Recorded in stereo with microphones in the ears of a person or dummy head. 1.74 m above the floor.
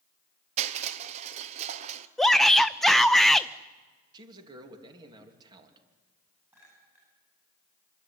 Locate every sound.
0.6 s crushing: 30° right (ahead or behind), 0.9 m
2.2 s a shout: 5° right (ahead or behind), 0.5 m
4.1 s a man speaking: 20° right (ahead or behind), 2.5 m
6.5 s a clink: 15° right (ahead or behind), 9.5 m